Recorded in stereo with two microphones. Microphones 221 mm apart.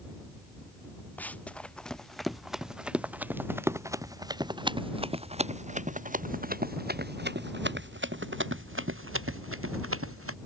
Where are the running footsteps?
5° left (ahead or behind); by 10.4 s 75° right (ahead or behind).